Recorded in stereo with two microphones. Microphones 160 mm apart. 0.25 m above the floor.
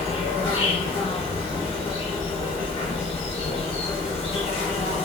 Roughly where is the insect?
Left.